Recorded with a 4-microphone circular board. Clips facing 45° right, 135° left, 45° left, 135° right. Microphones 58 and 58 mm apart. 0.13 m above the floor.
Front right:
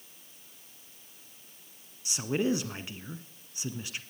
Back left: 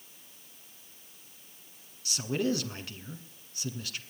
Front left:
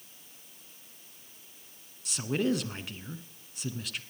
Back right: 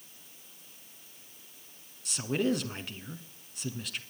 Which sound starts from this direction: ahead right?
A man speaking, at 2.0 s.